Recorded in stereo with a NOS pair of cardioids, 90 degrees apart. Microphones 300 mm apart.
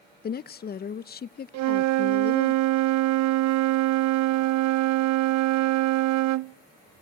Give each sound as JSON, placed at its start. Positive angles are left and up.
{"t": 0.2, "sound": "a woman speaking", "azimuth_deg": 30, "distance_m": 0.5}
{"t": 1.5, "sound": "a flute", "azimuth_deg": -65, "distance_m": 0.6}